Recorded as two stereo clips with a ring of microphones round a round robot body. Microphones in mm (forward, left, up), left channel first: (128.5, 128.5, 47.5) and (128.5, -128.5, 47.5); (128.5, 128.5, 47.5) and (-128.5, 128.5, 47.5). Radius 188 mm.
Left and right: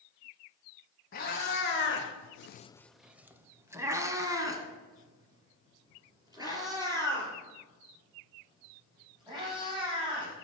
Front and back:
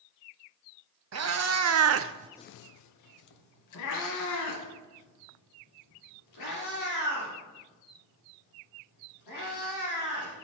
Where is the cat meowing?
155° left, 1.2 m; by 10.3 s 15° right, 7.5 m.